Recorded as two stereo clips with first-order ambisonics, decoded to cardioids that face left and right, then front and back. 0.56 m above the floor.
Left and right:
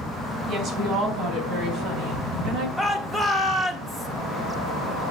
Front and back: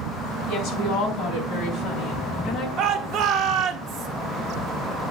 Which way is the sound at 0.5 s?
40° right.